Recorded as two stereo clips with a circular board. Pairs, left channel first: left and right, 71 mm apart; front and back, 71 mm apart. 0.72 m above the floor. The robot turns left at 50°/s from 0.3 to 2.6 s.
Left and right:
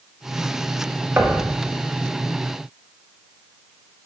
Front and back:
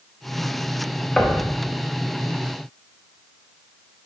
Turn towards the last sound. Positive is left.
turn(degrees=-155)